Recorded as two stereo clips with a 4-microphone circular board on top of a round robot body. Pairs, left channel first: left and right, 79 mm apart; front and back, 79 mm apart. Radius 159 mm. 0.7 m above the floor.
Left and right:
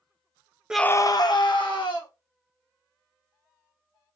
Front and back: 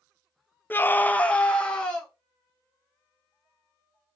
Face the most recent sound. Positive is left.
turn(degrees=80)